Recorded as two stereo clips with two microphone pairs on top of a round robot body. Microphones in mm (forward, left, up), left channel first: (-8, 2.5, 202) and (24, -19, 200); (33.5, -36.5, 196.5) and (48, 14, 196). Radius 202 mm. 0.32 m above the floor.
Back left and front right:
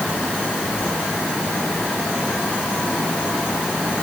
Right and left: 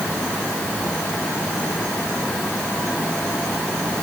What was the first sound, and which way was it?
Only background noise.